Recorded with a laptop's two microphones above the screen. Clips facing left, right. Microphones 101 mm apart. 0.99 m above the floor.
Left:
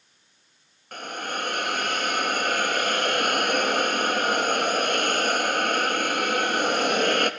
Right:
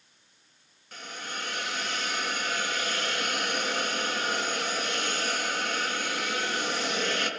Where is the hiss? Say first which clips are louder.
Left 8 dB; 55° left (ahead or behind), 0.5 m.